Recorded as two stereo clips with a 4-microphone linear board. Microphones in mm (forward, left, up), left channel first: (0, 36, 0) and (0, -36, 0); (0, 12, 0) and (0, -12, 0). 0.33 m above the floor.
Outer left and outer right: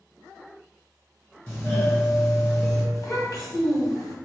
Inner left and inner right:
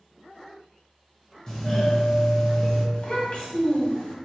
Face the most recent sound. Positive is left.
turn(degrees=60)  # may be behind; listen again after turning